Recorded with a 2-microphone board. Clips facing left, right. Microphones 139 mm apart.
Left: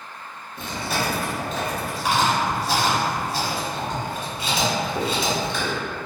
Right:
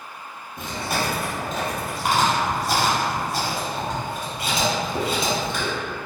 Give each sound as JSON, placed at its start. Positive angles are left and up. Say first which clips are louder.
{"t": 0.6, "sound": "chewing", "louder": "even", "side_deg": -50, "distance_m": 1.1}